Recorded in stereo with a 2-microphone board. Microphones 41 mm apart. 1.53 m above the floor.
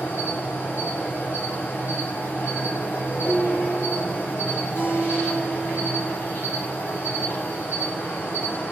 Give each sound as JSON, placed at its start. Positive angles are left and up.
{"t": 0.0, "sound": "an insect", "side_deg": 55, "distance_m": 1.6}
{"t": 3.2, "sound": "dishes clattering", "side_deg": 80, "distance_m": 4.0}
{"t": 4.8, "sound": "a guitar", "side_deg": 70, "distance_m": 1.7}